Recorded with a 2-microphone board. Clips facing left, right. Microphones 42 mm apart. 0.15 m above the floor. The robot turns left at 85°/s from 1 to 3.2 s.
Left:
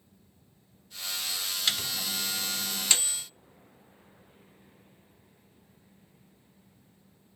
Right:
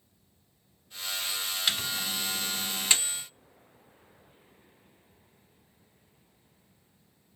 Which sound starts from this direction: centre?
A microwave, at 1.7 s.